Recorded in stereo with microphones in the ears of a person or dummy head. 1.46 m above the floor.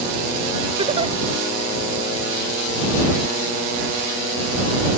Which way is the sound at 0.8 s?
35° right (ahead or behind).